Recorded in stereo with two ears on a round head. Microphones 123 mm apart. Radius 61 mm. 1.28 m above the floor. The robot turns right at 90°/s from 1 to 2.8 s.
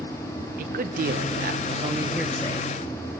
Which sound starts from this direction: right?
A man speaking, at 0.6 s.